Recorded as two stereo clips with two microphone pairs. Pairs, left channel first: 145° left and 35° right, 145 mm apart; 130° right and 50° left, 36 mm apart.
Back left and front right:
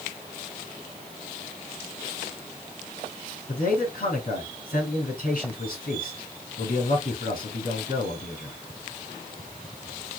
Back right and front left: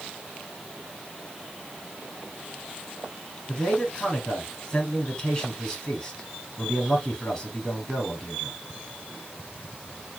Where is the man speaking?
160° left, 3.5 m.